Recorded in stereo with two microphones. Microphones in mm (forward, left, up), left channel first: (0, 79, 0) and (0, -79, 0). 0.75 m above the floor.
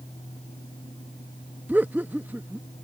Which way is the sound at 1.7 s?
10° right (ahead or behind).